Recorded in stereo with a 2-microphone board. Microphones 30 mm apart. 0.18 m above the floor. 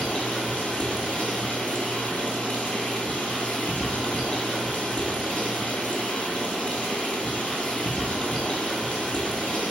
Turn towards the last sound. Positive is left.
turn(degrees=35)  # may be behind; listen again after turning